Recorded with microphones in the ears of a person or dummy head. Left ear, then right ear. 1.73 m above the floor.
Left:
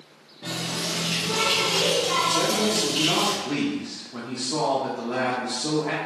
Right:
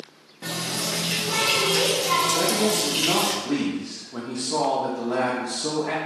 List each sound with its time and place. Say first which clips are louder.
0.4 s a running tap: right 1 dB; 60° right (ahead or behind), 1.3 m
2.3 s a man speaking: even; 10° right (ahead or behind), 0.6 m